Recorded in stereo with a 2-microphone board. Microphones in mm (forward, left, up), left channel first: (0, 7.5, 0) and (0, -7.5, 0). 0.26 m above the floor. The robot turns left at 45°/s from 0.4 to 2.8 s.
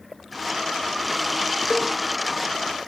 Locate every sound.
1.7 s a cowbell: 40° right (ahead or behind), 0.8 m; by 1.9 s 50° right (ahead or behind), 0.8 m